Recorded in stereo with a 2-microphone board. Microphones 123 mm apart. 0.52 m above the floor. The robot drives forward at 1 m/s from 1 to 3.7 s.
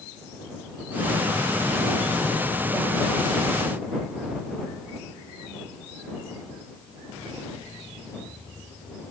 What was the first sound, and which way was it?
Only background noise.